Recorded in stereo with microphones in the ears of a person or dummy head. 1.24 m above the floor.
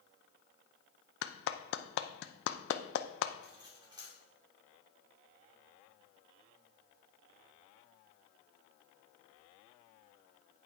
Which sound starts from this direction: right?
Cutlery clinking, at 3.4 s.